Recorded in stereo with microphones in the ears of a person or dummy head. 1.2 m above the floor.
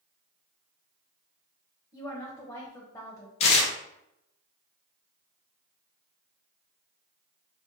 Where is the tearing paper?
35° left (ahead or behind), 0.6 m.